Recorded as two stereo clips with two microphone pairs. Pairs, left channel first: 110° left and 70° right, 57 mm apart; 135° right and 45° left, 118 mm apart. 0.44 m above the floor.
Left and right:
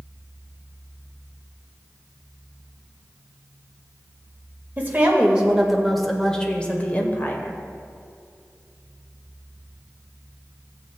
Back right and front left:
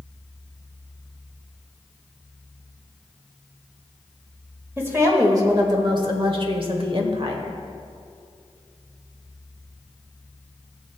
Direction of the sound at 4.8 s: 15° right.